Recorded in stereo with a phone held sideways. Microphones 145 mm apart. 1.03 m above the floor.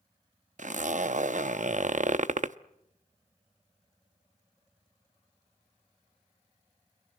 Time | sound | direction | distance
0.6 | a zipper | 60° right (ahead or behind) | 0.6 m